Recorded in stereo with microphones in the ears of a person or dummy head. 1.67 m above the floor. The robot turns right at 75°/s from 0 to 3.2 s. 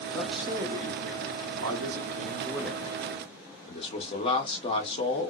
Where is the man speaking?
170° left, 1.0 m; by 5.3 s 40° left, 1.0 m.